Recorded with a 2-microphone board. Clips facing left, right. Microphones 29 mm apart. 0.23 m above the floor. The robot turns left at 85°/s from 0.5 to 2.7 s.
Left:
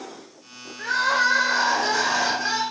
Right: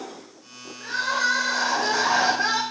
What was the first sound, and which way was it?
Crying, 85° left.